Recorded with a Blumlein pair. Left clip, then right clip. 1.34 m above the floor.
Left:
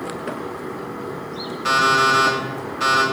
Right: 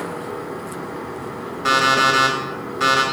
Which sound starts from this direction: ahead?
An alarm clock, at 1.6 s.